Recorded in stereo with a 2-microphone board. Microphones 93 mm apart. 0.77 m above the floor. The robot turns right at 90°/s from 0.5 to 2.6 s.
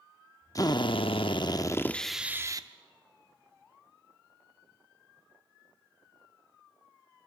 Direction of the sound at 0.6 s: 40° left.